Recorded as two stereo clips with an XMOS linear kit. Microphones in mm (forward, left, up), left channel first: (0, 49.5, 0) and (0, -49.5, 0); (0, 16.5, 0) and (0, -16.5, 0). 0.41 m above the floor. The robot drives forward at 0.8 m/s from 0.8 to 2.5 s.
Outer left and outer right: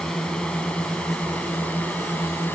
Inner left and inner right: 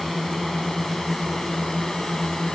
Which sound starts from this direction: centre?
A drone, at 0.0 s.